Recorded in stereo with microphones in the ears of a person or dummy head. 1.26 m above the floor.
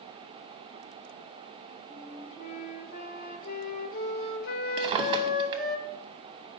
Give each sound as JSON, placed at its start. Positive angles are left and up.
{"t": 1.9, "sound": "a flute", "side_deg": 50, "distance_m": 0.8}
{"t": 4.8, "sound": "a drawer", "side_deg": -25, "distance_m": 0.7}